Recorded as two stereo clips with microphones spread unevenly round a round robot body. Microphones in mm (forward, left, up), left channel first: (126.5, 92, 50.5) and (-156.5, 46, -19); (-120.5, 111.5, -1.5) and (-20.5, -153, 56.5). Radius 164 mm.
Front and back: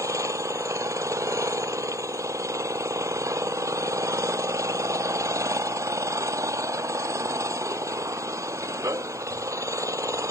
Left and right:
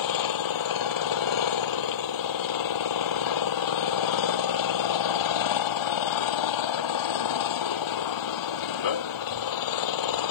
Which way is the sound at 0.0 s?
110° left.